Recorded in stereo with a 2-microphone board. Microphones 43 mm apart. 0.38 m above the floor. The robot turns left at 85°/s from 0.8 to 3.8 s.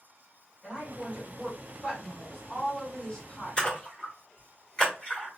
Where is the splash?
25° left (ahead or behind), 1.3 m.